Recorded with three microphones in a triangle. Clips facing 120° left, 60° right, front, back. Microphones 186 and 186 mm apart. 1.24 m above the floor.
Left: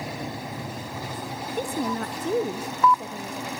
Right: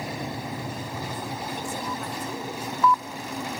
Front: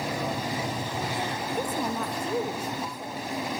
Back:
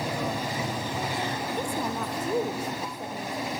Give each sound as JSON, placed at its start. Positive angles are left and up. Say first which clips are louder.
{"t": 1.5, "sound": "a woman speaking", "louder": "left 5 dB, front 1 dB", "azimuth_deg": 75, "distance_m": 1.1}